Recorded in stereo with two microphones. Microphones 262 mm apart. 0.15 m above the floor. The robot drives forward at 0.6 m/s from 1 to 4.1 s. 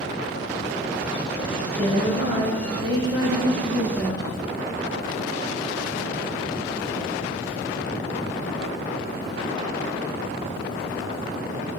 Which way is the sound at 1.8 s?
25° right (ahead or behind).